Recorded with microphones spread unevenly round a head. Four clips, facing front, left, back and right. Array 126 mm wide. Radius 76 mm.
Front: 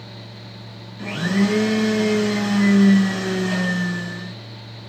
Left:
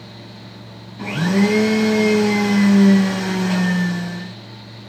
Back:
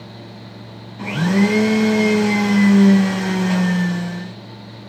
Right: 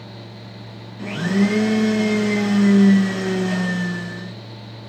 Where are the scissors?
I don't hear scissors.